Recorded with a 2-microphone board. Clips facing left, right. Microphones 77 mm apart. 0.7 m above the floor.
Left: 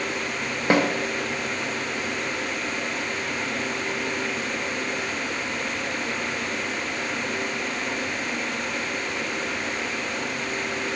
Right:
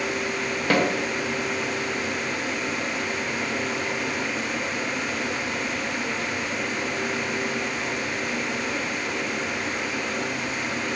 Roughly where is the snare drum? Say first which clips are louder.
Left 2 dB; centre.